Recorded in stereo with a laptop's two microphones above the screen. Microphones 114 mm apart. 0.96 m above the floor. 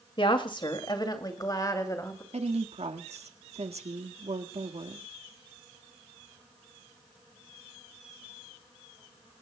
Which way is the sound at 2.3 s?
70° right (ahead or behind).